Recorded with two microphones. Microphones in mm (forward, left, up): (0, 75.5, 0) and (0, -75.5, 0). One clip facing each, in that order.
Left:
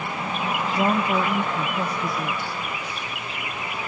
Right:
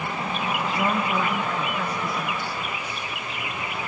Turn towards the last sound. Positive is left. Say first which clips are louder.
# left 4 dB
turn(degrees=25)  # may be behind; listen again after turning